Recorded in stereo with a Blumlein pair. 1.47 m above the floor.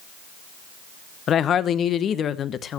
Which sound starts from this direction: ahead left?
A woman speaking, at 1.3 s.